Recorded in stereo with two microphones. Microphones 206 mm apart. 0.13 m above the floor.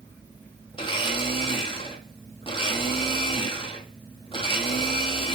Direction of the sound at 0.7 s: 25° left (ahead or behind).